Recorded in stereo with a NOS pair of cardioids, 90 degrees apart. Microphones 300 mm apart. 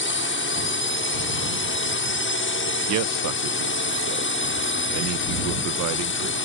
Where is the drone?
45° left.